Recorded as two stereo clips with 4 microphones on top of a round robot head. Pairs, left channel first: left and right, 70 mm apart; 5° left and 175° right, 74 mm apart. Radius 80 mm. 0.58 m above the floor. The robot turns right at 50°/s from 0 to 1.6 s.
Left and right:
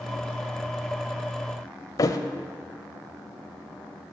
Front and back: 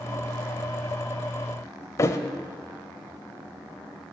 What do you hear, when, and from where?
2.0 s a thud: 55° left, 0.5 m